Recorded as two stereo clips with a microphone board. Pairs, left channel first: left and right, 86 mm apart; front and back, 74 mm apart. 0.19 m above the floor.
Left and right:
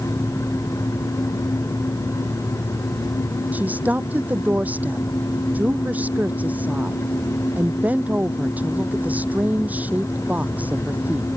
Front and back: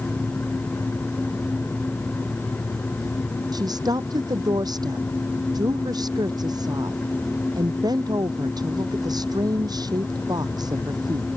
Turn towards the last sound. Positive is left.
turn(degrees=-160)